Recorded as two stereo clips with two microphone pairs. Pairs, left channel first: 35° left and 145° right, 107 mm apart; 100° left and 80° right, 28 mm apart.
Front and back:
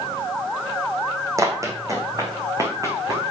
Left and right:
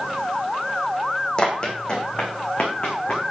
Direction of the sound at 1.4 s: 155° left.